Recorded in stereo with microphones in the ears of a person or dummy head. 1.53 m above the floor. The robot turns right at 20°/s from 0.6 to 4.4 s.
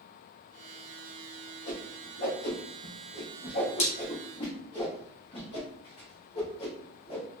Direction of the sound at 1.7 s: 60° left (ahead or behind).